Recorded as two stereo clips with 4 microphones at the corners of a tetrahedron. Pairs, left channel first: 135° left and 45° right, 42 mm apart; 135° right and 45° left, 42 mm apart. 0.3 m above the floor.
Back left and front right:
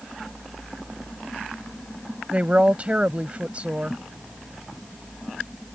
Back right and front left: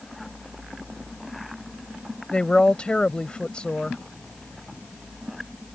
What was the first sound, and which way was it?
A woman speaking, 80° right.